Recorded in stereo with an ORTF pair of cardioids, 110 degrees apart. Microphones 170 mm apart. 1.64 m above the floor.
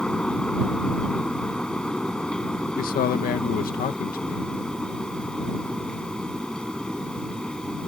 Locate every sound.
0.0 s a fan: 5° left
2.8 s a man speaking: 60° left